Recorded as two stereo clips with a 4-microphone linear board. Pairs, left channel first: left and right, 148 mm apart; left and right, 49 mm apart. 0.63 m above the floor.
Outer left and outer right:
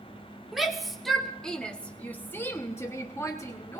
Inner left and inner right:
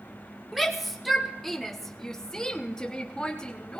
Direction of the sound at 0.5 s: Centre (ahead or behind).